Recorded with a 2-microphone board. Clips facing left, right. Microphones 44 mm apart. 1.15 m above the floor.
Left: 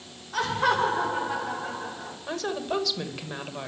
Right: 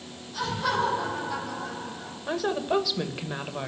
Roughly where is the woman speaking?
Centre.